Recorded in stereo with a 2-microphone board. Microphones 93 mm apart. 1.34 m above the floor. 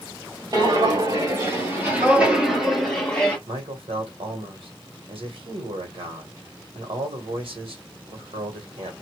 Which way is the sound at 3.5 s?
75° right (ahead or behind).